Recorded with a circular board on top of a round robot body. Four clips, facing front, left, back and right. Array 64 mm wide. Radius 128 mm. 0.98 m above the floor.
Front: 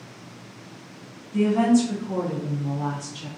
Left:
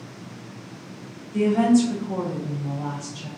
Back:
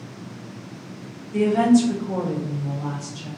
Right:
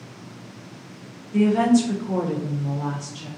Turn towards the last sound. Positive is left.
turn(degrees=-30)